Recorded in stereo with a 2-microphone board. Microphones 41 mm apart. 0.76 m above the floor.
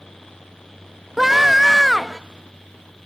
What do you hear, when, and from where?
1.2 s a scream: 5° right (ahead or behind), 0.6 m